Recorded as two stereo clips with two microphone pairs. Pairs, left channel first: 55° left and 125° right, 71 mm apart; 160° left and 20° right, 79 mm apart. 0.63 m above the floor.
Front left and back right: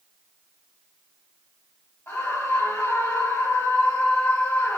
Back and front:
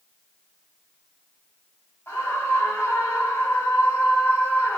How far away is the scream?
About 3 m.